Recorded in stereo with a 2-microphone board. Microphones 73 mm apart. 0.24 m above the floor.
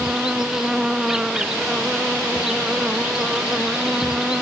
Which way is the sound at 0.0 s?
10° right (ahead or behind).